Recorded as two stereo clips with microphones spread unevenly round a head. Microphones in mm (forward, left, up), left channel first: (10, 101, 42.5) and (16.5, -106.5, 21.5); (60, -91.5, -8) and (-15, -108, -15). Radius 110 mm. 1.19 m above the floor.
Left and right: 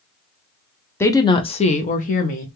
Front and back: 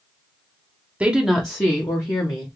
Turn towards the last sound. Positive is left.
turn(degrees=50)